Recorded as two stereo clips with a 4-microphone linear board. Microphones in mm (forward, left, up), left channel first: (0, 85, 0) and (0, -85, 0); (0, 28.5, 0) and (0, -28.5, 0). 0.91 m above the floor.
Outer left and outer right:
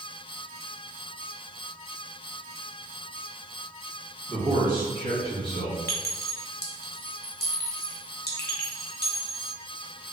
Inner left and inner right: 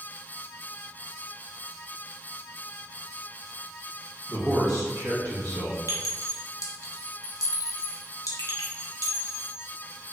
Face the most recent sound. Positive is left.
turn(degrees=75)  # may be behind; listen again after turning